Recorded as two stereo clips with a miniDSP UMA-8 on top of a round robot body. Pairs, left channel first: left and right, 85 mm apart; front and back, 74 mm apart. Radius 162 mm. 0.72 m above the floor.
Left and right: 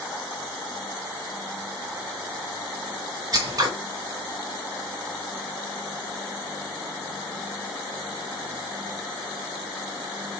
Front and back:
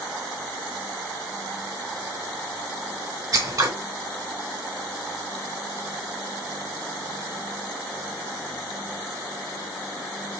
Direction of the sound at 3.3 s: 140° right.